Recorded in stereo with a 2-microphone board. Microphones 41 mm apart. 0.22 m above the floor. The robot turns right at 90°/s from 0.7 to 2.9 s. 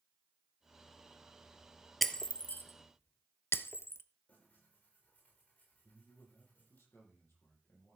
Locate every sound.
2.0 s breaking glass: centre (ahead or behind), 0.6 m; by 4.0 s 80° left, 0.6 m
4.3 s tearing paper: 45° left (ahead or behind), 6.5 m
5.8 s a man speaking: 80° left, 7.5 m